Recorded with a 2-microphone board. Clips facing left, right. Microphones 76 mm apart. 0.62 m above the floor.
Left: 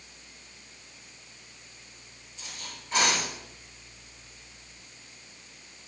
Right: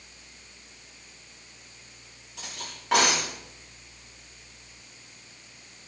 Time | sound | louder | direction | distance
2.4 | cutlery clinking | right 3 dB | 80° right | 9.5 m